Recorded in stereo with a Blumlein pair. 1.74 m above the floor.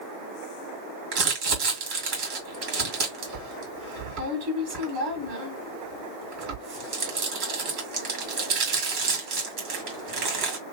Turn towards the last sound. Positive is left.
turn(degrees=-40)